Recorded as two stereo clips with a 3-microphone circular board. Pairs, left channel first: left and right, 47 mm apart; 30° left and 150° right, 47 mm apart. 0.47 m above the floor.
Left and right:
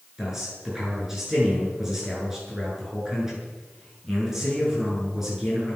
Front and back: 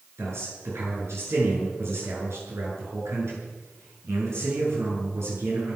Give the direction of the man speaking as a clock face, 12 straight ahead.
6 o'clock.